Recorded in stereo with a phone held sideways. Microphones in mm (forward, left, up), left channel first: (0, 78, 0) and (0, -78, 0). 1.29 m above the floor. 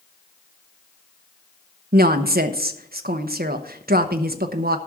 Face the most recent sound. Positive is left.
turn(degrees=-80)